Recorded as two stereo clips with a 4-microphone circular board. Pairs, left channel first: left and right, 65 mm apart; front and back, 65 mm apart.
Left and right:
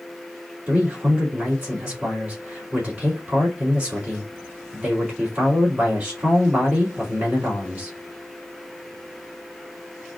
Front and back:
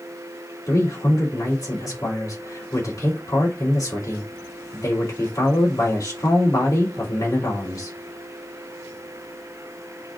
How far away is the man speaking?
About 3 m.